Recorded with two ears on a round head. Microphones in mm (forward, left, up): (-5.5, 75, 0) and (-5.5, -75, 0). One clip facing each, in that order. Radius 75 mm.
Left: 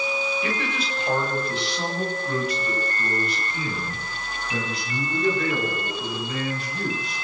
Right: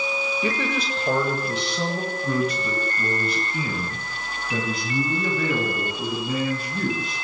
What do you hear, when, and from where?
0.4 s a man speaking: 85° right, 7.5 m; by 7.1 s 75° right (ahead or behind), 16.5 m